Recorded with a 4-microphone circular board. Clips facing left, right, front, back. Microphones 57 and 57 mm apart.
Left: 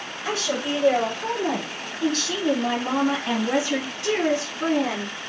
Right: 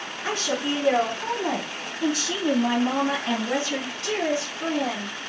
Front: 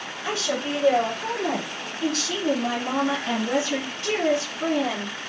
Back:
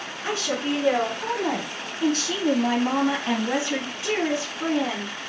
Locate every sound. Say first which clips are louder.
0.2 s a woman speaking: even, back 1 dB; 120° right, 2.0 m; by 5.1 s 105° left, 1.4 m